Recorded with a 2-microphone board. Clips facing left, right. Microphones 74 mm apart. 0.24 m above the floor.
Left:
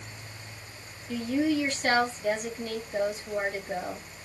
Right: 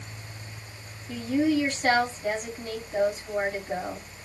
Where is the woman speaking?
30° right (ahead or behind), 2 m.